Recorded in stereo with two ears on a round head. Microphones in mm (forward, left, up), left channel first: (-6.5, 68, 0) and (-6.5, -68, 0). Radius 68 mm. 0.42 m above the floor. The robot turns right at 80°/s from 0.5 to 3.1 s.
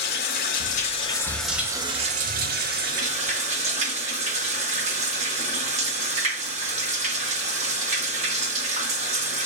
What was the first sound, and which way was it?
Running water, 105° left.